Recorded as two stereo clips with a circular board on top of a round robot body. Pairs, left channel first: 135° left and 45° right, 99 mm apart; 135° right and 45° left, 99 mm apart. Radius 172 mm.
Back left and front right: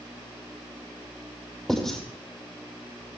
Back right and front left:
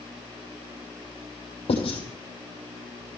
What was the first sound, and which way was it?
Writing, 135° right.